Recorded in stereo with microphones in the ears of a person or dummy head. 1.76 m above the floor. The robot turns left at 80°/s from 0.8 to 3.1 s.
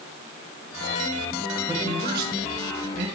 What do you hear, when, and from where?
1.7 s a man speaking: 15° right (ahead or behind), 2 m; by 3.0 s 55° right (ahead or behind), 2 m